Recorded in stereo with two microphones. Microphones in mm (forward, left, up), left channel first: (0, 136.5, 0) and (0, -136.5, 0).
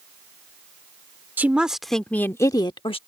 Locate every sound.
1.4 s a woman speaking: 5° right (ahead or behind); by 3.0 s 20° left (ahead or behind)